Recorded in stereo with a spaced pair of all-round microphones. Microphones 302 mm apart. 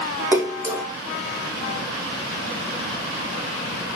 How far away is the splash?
About 1.4 m.